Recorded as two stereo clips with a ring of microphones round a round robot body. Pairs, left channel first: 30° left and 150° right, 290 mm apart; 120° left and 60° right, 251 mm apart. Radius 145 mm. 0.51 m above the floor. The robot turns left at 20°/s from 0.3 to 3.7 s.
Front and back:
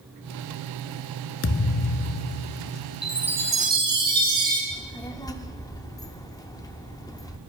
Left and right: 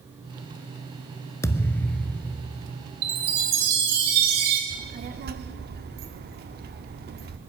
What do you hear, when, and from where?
1.4 s a thud: 45° left, 0.5 m; by 2.7 s 20° left, 0.5 m
3.0 s a chime: 60° right, 2.5 m; by 4.6 s 75° right, 2.5 m
4.7 s a child speaking: 40° right, 1.0 m